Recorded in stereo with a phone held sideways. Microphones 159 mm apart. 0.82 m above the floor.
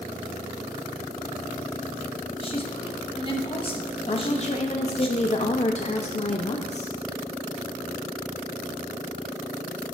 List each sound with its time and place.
2.4 s a woman speaking: 35° left (ahead or behind), 1.0 m
4.1 s a woman speaking: 45° left (ahead or behind), 0.5 m